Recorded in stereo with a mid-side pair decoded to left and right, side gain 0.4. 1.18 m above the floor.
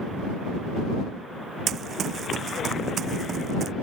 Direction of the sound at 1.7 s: 65° right.